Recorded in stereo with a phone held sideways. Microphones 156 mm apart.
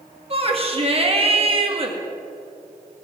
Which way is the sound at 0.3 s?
40° right (ahead or behind).